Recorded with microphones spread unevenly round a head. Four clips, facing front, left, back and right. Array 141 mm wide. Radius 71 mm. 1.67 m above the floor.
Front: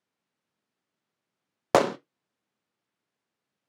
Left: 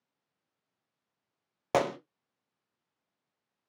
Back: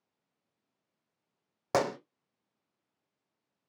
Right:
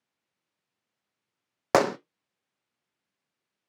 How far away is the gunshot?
About 0.6 m.